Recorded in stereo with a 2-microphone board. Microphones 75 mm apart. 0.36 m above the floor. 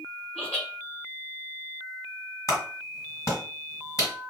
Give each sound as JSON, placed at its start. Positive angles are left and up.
{"t": 0.3, "sound": "laughter", "side_deg": 15, "distance_m": 1.6}
{"t": 2.5, "sound": "a clap", "side_deg": 45, "distance_m": 1.8}